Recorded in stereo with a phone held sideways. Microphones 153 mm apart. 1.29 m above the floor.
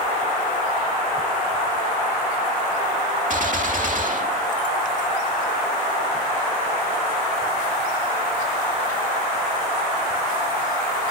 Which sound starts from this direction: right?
A gunshot, at 3.3 s.